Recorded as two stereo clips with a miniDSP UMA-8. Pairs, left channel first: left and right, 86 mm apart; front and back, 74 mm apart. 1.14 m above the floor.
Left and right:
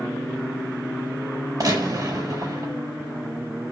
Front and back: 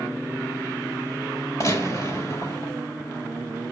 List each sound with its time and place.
1.6 s a gunshot: 45° right, 5.5 m